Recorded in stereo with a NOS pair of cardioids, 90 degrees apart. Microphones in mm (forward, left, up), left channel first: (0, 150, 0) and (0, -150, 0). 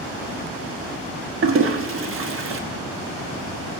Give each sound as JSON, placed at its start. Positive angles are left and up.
{"t": 1.4, "sound": "a toilet flushing", "azimuth_deg": -45, "distance_m": 1.2}